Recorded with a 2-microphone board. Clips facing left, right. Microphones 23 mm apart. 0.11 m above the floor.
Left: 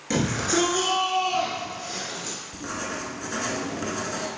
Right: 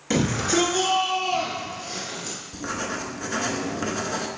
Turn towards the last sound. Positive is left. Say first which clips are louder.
# right 4 dB
turn(degrees=-20)  # may be behind; listen again after turning